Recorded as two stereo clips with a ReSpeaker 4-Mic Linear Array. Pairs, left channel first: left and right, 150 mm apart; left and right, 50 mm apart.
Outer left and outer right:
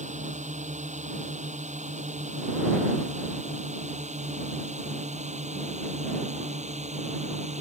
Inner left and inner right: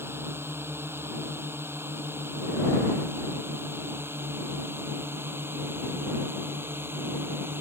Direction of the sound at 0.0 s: 55° right (ahead or behind).